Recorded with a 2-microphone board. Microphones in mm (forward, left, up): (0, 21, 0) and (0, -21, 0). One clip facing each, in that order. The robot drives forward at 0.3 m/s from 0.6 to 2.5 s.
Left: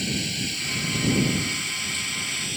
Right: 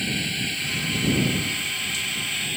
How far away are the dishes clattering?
I don't hear dishes clattering.